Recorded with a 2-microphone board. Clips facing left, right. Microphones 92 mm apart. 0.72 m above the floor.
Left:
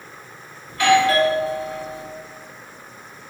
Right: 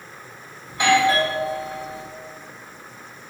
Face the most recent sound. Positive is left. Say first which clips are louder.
# left 2 dB
turn(degrees=-20)  # may be behind; listen again after turning